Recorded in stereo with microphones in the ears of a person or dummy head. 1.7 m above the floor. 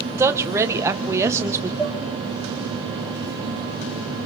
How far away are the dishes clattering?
About 2.5 m.